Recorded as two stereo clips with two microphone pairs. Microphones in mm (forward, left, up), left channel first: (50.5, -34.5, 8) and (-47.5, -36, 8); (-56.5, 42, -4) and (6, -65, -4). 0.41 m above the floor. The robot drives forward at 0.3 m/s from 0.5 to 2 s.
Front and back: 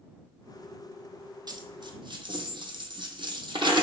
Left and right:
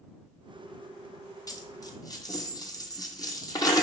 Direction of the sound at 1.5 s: 170° left.